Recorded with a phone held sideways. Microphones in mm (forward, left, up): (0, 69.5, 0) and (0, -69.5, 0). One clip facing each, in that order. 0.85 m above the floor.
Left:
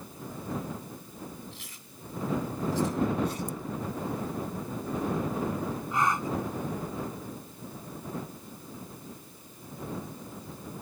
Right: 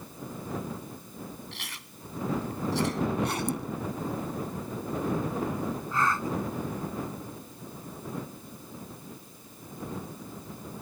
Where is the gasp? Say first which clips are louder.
Left 1 dB; 15° left (ahead or behind).